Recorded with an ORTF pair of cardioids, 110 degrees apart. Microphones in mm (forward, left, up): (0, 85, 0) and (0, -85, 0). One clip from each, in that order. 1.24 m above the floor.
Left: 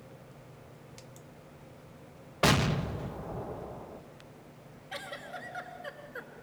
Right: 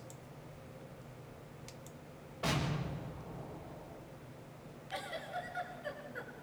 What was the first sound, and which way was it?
An explosion, 70° left.